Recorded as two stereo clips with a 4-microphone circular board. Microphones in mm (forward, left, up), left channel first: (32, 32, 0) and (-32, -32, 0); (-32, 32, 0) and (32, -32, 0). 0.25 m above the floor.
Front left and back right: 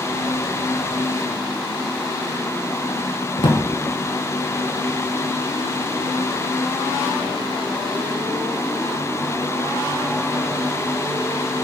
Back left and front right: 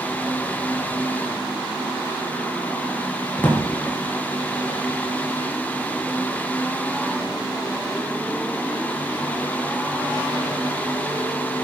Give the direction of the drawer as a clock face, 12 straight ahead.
10 o'clock.